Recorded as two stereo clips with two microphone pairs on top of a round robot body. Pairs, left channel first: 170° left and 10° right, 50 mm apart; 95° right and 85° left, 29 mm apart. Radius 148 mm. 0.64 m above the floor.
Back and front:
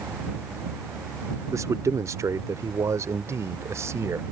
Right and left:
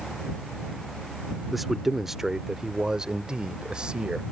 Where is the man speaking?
5° right; by 4.2 s 20° left.